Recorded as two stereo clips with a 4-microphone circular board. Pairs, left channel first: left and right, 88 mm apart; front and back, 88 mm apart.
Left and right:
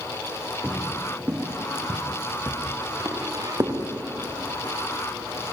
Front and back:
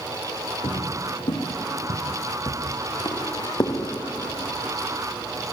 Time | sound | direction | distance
0.6 | footsteps | 15° right | 4 m